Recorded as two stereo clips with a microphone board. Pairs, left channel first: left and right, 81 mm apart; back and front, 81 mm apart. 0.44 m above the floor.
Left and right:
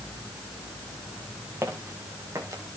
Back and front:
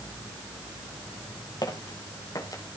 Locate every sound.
1.6 s footsteps: 145° right, 5 m; by 2.6 s 135° right, 5 m